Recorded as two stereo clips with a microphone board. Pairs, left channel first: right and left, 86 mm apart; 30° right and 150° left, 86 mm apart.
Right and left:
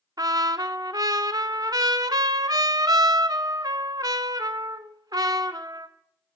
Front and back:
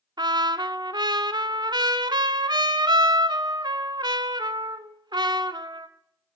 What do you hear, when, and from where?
0.2 s a trumpet: 125° left, 0.7 m